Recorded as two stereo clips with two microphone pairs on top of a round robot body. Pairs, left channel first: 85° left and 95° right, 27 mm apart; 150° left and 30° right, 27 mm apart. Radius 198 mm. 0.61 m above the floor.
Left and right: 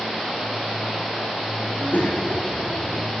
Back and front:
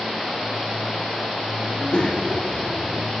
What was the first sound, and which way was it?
A child speaking, 105° left.